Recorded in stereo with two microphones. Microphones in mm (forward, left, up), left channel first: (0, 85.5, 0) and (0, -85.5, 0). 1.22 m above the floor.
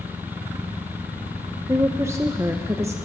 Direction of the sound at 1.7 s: 15° right (ahead or behind).